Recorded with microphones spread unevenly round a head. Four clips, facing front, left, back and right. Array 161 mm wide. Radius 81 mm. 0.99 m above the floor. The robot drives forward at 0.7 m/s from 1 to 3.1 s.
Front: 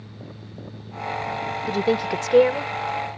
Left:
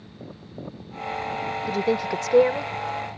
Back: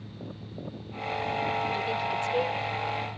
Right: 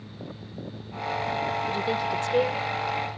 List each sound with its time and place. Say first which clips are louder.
1.7 s a woman speaking: left 3 dB, front 7 dB; 20° left; by 2.7 s 25° left